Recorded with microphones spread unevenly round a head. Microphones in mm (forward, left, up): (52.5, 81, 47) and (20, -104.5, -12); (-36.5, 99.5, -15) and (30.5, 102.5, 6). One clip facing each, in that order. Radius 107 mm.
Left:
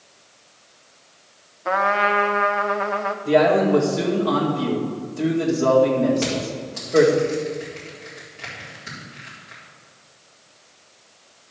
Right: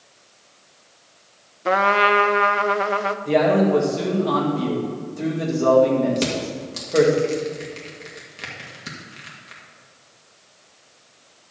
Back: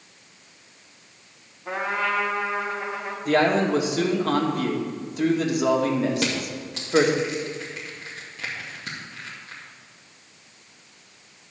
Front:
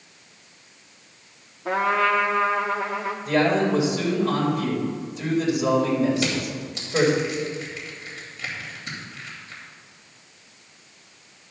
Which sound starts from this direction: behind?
A man speaking, at 3.2 s.